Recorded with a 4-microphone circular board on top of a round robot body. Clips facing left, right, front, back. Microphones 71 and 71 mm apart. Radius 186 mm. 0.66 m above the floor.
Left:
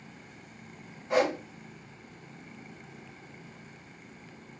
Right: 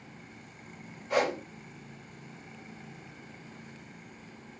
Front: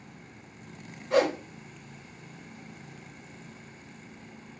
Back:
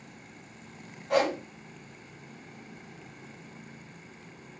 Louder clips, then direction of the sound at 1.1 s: Left 2 dB, front 2 dB; 160° left.